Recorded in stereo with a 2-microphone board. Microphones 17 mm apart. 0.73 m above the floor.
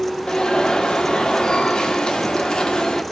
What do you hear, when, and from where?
0.3 s an alarm: 50° left (ahead or behind), 1.9 m